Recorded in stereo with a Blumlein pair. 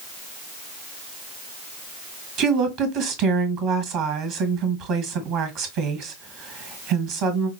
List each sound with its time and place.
2.4 s a woman speaking: 40° right, 1.5 m